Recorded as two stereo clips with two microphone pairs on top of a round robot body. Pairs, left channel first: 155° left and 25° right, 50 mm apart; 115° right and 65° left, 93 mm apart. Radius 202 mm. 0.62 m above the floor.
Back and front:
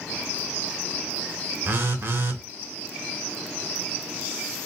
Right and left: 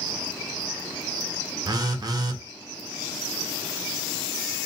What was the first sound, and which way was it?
A phone buzzing, 25° left.